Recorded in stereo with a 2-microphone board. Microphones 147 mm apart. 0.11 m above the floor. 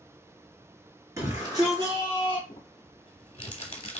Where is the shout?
20° right (ahead or behind), 1.9 m; by 2.4 s 40° right (ahead or behind), 2 m.